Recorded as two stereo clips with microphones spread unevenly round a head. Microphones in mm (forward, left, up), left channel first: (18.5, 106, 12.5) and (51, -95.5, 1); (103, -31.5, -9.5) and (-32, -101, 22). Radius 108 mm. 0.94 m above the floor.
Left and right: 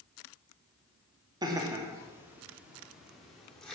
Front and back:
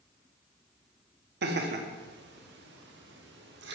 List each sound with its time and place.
1.4 s laughter: 150° right, 2 m; by 3.7 s 175° right, 3.5 m